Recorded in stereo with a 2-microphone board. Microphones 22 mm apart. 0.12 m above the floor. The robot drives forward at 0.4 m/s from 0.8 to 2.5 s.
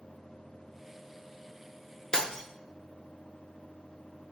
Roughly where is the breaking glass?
Left.